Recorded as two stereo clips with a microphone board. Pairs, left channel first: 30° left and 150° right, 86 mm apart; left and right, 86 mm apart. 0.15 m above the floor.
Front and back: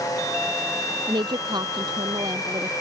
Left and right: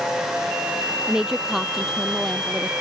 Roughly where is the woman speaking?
Behind.